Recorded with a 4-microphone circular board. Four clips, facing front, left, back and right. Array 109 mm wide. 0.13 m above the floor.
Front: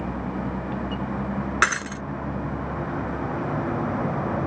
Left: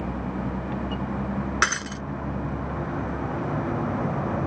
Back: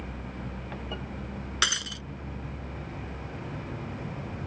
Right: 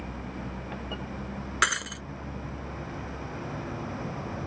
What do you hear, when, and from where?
0.0 s a vehicle: 35° left
1.6 s breaking glass: 15° left